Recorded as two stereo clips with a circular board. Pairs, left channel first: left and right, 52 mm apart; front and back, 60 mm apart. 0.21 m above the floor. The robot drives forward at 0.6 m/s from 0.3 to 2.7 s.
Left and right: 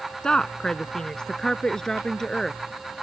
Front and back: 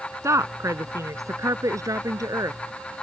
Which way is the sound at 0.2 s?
165° left.